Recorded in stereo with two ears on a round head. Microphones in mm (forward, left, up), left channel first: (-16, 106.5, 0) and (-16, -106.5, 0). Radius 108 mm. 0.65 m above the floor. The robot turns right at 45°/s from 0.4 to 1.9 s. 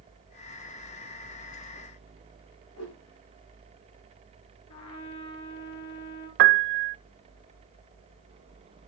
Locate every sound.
2.8 s a whoosh: 80° left, 6 m
4.7 s a trumpet: 70° left (ahead or behind), 8 m
6.4 s a piano: 50° right (ahead or behind), 0.7 m